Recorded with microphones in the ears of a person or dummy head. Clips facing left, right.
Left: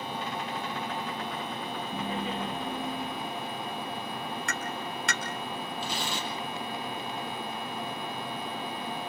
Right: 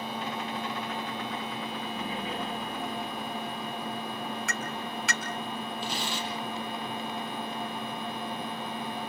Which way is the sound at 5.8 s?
75° left (ahead or behind).